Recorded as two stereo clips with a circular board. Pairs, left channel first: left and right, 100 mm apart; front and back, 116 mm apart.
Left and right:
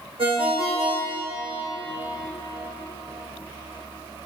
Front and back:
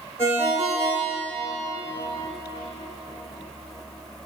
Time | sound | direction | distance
0.2 | a ringtone | 110° right | 2.5 m